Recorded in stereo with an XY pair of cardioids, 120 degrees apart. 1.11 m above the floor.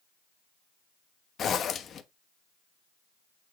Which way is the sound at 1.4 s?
45° left.